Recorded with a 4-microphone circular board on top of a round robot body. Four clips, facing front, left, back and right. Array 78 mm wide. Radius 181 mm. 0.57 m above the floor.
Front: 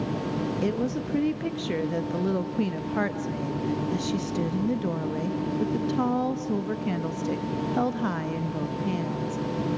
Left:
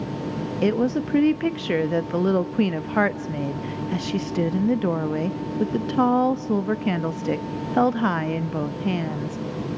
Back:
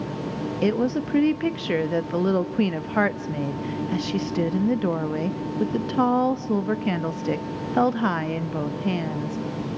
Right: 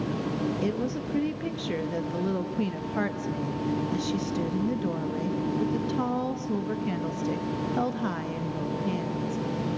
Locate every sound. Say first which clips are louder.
0.6 s a woman speaking: left 7 dB, back 9 dB; 120° left, 0.9 m